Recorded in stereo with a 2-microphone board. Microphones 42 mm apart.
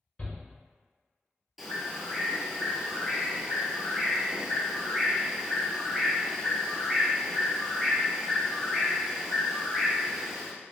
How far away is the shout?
About 1.1 m.